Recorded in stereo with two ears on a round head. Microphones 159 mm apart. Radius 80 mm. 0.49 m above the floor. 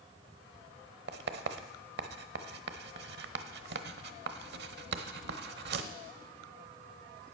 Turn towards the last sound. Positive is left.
turn(degrees=-65)  # may be behind; listen again after turning